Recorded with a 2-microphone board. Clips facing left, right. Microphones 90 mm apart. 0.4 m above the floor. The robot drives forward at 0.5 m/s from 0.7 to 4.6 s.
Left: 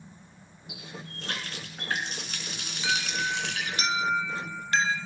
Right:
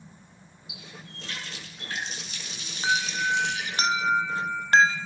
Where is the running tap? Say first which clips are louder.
Left 4 dB; 50° left (ahead or behind), 4 m; by 3.8 s 70° left (ahead or behind), 3 m.